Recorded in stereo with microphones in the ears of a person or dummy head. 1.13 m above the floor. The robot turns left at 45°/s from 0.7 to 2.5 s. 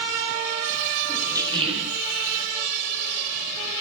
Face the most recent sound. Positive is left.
turn(degrees=-70)